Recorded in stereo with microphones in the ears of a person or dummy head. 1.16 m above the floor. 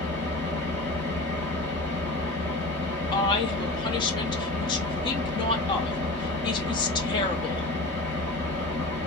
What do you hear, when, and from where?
0.0 s an engine running: 10° left (ahead or behind), 0.7 m
3.1 s a woman speaking: 20° left (ahead or behind), 0.6 m